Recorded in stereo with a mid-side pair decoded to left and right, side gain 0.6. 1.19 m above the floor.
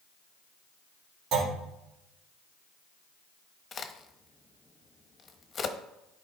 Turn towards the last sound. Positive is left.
turn(degrees=35)